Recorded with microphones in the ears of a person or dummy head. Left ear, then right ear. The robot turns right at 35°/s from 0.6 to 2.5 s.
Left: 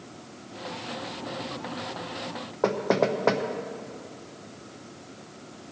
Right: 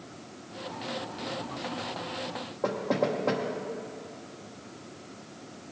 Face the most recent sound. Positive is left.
turn(degrees=70)  # may be behind; listen again after turning